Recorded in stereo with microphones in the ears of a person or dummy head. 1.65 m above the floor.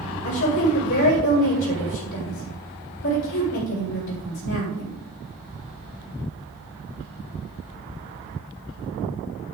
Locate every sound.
0.2 s a woman speaking: 80° left, 5.5 m